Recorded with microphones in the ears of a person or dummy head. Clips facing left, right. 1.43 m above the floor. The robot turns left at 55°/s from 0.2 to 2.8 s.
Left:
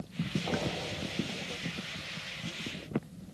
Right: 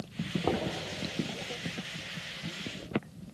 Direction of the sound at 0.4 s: 75° right (ahead or behind).